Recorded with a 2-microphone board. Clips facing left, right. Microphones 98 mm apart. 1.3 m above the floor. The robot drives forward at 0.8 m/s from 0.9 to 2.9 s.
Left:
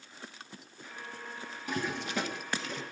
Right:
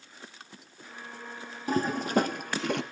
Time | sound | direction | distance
1.7 | a toilet flushing | 35° right (ahead or behind) | 1.6 m